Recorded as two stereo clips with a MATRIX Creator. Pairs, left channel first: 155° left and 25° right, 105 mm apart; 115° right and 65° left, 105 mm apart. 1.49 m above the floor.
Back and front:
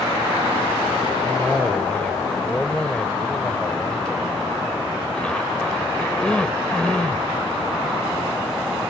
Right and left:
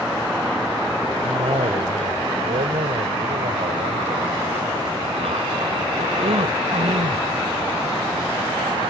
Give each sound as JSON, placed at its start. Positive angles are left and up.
{"t": 1.2, "sound": "a cough", "azimuth_deg": 75}